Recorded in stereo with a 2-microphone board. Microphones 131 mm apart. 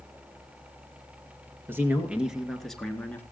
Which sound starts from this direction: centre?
A man speaking, at 1.7 s.